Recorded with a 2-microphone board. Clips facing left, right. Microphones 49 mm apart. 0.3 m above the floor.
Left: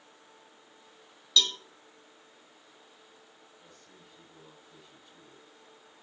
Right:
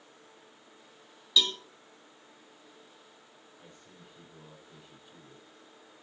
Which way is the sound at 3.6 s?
15° right (ahead or behind).